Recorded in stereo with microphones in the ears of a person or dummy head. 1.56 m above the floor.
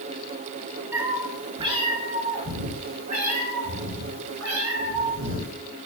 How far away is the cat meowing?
About 2.5 m.